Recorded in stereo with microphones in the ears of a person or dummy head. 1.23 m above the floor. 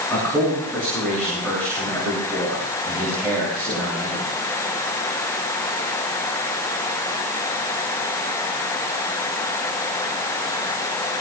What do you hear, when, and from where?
0.1 s a man speaking: 5° left (ahead or behind), 7.5 m